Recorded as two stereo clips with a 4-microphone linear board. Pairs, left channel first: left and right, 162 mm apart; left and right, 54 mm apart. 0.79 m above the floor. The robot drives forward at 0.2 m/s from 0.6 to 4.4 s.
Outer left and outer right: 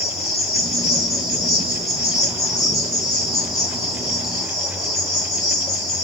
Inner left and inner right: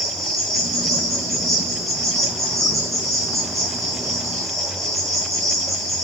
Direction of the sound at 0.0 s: Centre (ahead or behind).